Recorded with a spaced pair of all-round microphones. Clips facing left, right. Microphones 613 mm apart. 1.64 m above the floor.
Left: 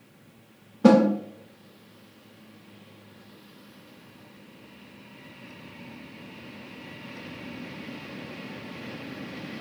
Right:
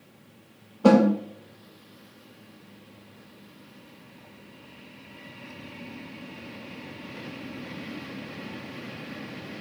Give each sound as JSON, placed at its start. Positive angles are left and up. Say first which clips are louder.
{"t": 0.8, "sound": "a snare drum", "louder": "left 1 dB", "side_deg": 45, "distance_m": 0.7}